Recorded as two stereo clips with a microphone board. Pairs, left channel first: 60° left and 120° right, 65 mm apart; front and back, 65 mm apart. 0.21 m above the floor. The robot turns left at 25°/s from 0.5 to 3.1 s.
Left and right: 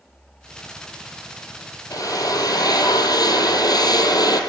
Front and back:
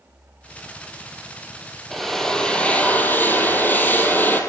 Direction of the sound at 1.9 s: 90° left.